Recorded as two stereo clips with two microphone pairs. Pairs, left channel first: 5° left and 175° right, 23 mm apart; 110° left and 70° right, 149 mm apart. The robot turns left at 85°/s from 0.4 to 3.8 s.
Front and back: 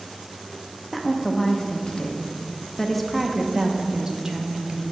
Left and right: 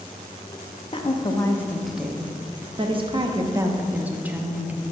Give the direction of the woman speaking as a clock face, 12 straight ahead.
9 o'clock.